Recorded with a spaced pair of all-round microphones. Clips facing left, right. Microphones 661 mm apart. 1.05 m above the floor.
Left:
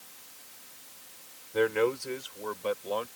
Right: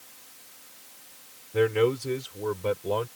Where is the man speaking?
55° right (ahead or behind); by 3.1 s 85° right.